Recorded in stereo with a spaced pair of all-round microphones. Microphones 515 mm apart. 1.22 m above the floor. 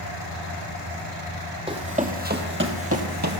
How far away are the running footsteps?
About 2 m.